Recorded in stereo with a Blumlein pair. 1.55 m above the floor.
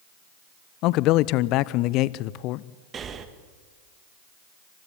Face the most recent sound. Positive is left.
turn(degrees=-25)